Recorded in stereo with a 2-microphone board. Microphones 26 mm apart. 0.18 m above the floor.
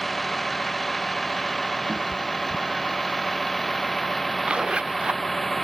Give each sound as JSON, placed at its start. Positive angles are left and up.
{"t": 0.0, "sound": "a vehicle", "side_deg": 5}
{"t": 1.9, "sound": "a cat meowing", "side_deg": -55}
{"t": 4.4, "sound": "a zipper", "side_deg": -45}